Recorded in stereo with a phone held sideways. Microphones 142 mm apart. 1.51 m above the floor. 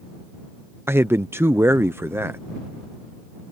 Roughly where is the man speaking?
Centre.